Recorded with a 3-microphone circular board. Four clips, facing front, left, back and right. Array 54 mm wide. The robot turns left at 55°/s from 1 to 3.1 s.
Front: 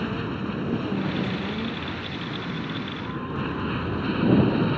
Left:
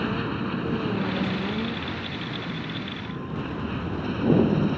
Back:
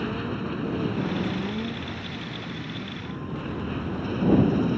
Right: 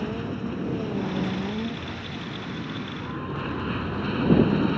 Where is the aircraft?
80° left; by 4.8 s 35° right.